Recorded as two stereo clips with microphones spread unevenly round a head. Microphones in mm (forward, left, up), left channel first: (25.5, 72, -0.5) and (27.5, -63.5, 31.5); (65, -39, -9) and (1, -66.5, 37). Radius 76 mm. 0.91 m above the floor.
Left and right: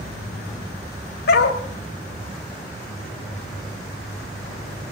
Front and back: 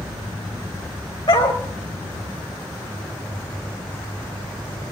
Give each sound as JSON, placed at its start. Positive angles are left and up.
{"t": 1.3, "sound": "a dog barking", "azimuth_deg": 85, "distance_m": 1.8}